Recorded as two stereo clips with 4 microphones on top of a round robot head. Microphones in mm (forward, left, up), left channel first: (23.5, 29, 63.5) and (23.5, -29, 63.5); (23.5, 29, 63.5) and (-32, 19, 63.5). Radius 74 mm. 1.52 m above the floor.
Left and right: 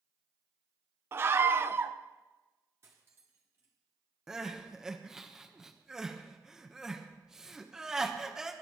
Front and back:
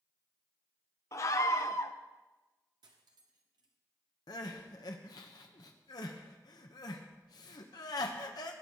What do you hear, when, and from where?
1.1 s a scream: 40° right, 0.8 m
2.8 s cutlery clinking: 150° right, 1.5 m
4.3 s crying: 10° right, 1.3 m